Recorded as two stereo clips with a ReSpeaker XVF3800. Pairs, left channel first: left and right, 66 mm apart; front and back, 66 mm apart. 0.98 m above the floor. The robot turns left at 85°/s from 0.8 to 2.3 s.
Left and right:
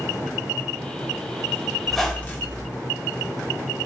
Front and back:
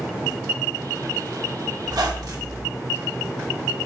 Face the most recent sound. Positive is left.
turn(degrees=150)